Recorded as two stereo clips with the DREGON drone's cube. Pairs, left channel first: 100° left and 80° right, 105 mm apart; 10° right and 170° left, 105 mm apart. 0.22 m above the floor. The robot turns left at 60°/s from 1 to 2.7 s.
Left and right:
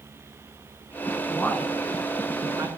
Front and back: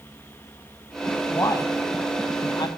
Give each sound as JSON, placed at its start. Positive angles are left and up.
{"t": 1.3, "sound": "a man speaking", "azimuth_deg": 45, "distance_m": 1.7}